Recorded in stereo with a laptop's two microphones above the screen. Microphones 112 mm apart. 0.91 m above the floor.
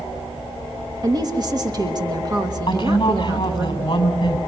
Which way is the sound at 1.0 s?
35° right (ahead or behind).